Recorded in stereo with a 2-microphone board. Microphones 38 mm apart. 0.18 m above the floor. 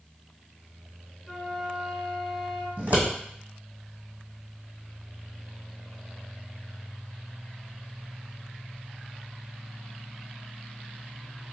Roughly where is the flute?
Centre.